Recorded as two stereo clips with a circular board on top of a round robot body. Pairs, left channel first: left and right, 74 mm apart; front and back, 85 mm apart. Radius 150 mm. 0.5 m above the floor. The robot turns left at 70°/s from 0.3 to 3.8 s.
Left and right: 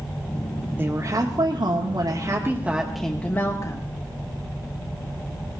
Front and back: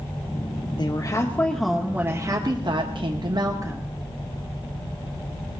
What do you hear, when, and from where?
0.8 s a woman speaking: 25° right, 1.3 m; by 3.9 s 120° left, 1.3 m